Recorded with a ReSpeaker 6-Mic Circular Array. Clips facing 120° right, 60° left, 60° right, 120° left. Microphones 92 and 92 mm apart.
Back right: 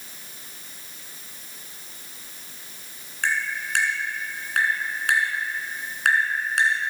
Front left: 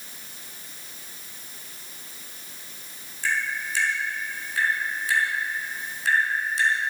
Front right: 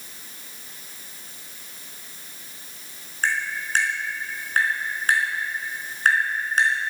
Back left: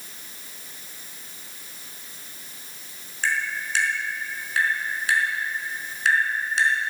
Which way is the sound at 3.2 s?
105° right.